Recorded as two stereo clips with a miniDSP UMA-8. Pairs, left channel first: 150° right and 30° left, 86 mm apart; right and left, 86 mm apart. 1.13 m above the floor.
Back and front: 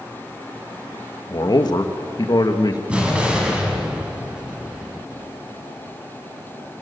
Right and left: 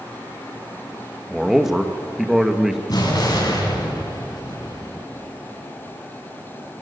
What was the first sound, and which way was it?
A man speaking, 175° left.